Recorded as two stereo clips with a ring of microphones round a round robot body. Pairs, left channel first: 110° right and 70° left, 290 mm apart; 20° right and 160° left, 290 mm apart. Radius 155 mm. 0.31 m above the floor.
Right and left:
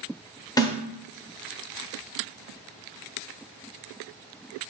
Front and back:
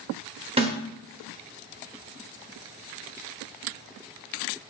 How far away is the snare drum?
About 0.9 m.